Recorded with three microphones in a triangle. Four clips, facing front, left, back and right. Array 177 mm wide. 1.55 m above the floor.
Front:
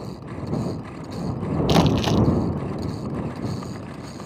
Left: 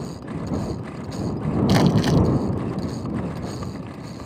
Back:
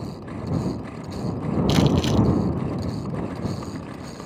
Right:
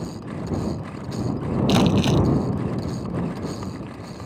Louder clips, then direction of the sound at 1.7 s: Even, front 2 dB; 10° left.